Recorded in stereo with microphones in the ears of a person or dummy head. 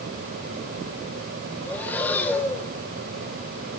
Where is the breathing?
10° left (ahead or behind), 1.2 m.